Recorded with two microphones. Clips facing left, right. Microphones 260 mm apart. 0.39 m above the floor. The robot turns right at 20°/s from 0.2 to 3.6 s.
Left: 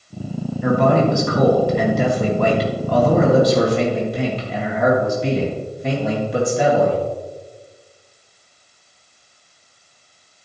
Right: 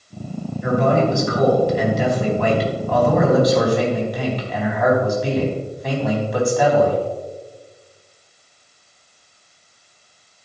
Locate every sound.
0.6 s a man speaking: 90° left, 3.5 m; by 7.0 s 150° left, 3.5 m